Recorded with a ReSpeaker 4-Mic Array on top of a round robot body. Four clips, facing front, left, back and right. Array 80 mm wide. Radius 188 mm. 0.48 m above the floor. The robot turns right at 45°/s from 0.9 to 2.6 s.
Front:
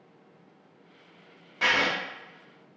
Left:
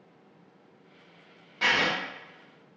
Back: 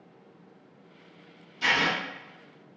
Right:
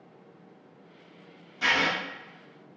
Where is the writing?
25° left, 0.8 m; by 1.9 s 40° left, 0.8 m.